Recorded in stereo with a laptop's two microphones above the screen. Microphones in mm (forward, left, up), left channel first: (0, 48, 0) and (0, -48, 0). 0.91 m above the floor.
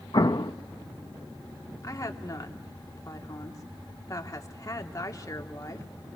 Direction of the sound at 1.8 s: 35° left (ahead or behind).